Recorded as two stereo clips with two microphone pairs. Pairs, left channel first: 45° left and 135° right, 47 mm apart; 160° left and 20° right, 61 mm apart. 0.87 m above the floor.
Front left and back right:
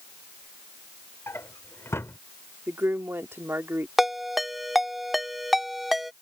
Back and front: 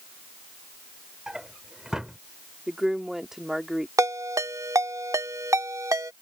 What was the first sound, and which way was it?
A drawer, 55° left.